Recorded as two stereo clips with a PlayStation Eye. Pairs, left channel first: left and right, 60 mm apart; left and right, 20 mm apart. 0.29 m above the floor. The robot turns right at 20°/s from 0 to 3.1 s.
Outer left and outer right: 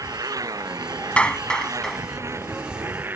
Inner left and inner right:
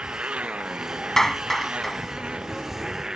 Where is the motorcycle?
100° right; by 3.2 s 35° right.